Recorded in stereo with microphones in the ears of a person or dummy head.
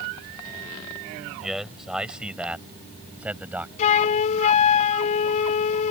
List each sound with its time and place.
1.4 s a man speaking: centre (ahead or behind); by 3.7 s 5° right (ahead or behind)
3.8 s a flute: 35° left (ahead or behind)